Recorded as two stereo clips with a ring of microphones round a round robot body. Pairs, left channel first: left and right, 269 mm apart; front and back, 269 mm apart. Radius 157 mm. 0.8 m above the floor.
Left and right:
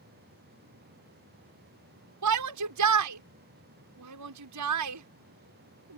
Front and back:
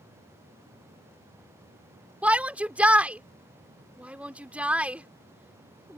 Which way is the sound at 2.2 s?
95° right.